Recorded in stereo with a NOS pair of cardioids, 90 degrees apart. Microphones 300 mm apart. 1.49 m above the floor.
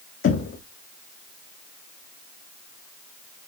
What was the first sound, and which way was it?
Knocking, 45° left.